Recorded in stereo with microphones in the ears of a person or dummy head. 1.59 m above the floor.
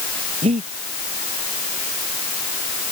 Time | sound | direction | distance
0.4 | breathing | 30° right (ahead or behind) | ?